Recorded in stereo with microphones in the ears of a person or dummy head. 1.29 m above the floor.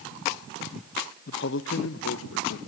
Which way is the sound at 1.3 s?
45° left (ahead or behind).